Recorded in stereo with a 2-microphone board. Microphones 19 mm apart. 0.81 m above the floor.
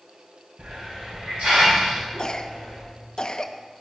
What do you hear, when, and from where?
0.6 s a hiss: 75° right (ahead or behind), 5.5 m
2.2 s a cough: 45° left (ahead or behind), 0.9 m